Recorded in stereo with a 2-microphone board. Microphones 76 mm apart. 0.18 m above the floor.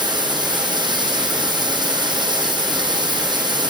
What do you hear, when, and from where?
0.0 s running water: 70° right (ahead or behind), 4 m